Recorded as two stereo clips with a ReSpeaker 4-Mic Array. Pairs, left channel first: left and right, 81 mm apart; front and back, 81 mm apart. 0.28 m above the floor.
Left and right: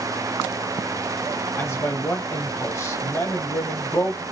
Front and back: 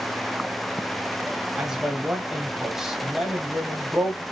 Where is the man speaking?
105° left, 1.0 m.